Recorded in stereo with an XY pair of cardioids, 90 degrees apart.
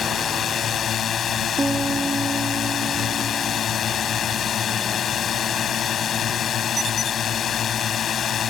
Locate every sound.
0.0 s a drone: 60° left
1.6 s a piano: 25° right